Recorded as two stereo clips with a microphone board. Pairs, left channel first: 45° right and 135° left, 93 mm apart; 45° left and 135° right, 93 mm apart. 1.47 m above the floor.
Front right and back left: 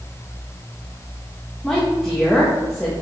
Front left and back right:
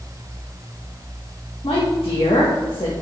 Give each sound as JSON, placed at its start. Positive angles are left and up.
{"t": 1.6, "sound": "a woman speaking", "azimuth_deg": 40, "distance_m": 1.4}